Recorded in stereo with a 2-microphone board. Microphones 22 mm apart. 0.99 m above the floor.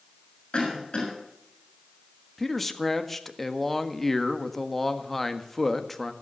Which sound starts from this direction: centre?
A man speaking, at 2.4 s.